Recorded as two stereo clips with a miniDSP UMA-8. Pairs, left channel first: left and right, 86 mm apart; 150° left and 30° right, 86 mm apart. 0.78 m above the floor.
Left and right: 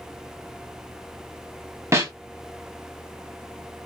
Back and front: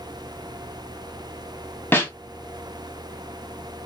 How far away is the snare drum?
About 1.6 m.